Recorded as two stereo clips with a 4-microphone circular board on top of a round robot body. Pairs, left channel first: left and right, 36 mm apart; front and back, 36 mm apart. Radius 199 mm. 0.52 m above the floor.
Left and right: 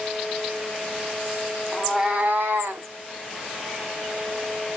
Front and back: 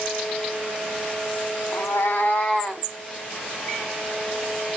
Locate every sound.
1.7 s a cat meowing: 10° left, 0.8 m; by 2.9 s 95° right, 1.0 m